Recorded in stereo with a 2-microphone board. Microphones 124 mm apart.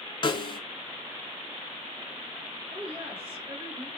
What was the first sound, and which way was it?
A snare drum, 40° left (ahead or behind).